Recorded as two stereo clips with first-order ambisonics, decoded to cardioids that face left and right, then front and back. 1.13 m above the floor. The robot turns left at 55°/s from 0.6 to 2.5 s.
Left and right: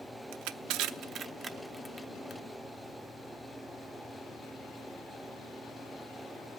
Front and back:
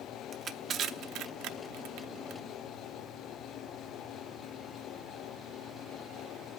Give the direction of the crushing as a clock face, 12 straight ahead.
4 o'clock.